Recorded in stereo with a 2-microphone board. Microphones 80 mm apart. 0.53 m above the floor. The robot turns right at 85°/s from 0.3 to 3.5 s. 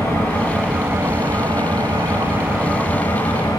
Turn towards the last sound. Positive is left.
turn(degrees=70)